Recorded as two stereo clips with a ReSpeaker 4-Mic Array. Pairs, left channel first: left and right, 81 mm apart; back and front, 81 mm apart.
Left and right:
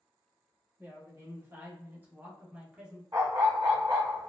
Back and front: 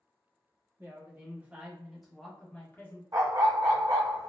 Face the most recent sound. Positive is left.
turn(degrees=-40)